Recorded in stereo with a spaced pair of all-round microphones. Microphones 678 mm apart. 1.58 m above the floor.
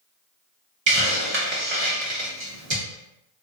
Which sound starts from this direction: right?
A hiss, at 0.9 s.